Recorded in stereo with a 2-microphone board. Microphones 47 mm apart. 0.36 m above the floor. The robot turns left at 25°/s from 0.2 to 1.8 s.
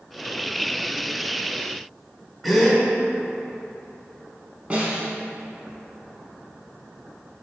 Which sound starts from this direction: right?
A snare drum, at 4.7 s.